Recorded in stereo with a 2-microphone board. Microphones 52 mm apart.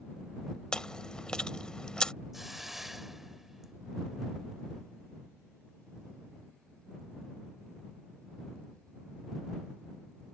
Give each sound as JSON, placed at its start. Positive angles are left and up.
{"t": 0.7, "sound": "chewing", "side_deg": 20}
{"t": 2.3, "sound": "a hiss", "side_deg": -5}